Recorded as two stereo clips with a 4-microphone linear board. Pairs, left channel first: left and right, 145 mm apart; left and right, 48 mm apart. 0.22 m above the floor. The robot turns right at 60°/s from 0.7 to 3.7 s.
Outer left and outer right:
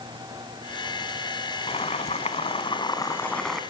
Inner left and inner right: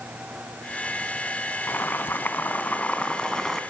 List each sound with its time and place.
1.7 s boiling: 65° left, 2 m; by 3.6 s straight behind, 2 m